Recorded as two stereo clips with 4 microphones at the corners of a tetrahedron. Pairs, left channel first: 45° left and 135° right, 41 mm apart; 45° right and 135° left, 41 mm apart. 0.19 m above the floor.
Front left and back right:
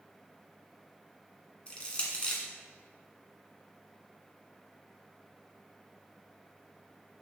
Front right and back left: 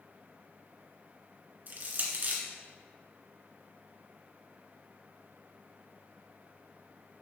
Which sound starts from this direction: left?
Crushing, at 1.7 s.